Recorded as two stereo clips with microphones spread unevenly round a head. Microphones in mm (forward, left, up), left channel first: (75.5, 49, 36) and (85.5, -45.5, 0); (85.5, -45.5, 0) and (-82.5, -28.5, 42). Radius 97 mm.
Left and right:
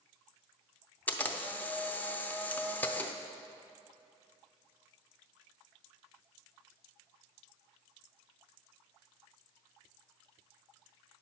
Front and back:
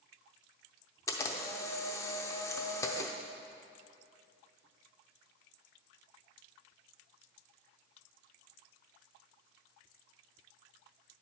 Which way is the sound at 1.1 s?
80° left.